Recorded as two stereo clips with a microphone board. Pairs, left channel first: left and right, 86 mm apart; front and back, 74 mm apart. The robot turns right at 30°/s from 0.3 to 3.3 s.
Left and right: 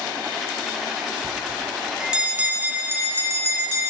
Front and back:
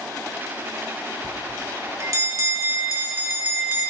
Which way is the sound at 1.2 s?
170° left.